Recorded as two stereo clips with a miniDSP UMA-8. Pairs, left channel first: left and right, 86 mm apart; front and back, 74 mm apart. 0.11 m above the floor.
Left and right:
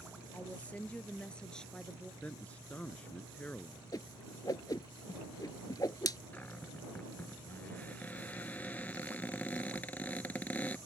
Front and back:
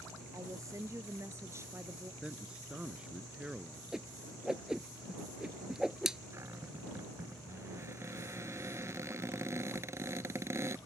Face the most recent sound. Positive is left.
turn(degrees=155)